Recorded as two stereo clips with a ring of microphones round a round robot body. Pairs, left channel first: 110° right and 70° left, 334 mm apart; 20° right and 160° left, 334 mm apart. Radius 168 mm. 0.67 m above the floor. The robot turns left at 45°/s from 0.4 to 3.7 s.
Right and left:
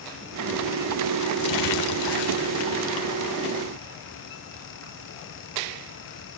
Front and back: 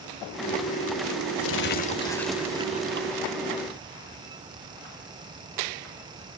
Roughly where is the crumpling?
Right.